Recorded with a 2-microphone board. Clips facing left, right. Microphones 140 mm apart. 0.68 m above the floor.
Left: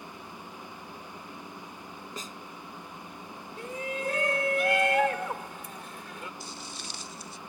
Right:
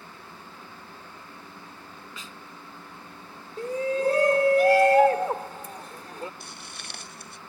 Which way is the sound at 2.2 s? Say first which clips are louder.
Left 5 dB; 40° left (ahead or behind).